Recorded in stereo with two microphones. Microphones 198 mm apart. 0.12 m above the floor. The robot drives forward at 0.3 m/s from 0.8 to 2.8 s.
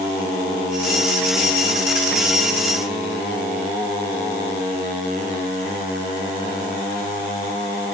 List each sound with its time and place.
Only background noise.